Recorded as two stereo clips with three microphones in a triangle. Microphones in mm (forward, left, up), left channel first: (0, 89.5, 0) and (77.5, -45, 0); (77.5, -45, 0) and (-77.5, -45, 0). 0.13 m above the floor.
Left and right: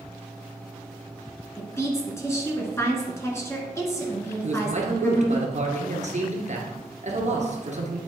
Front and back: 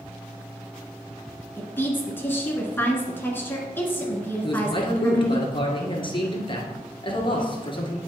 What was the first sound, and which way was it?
A woman speaking, 65° left.